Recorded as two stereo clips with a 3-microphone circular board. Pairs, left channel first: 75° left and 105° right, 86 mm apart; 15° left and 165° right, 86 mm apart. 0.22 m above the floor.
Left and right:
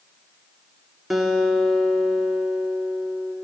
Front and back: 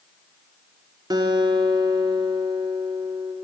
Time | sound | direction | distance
1.1 | a guitar | 165° left | 1.3 m